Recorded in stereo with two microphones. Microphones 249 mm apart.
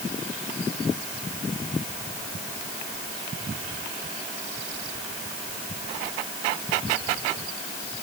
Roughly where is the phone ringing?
I don't hear a phone ringing.